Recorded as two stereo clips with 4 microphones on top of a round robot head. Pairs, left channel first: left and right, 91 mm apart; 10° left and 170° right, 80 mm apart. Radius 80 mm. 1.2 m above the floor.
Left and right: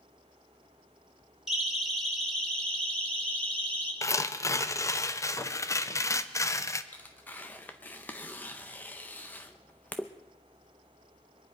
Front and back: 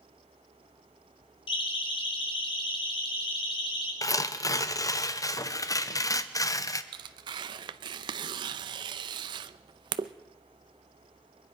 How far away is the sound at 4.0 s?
About 0.9 m.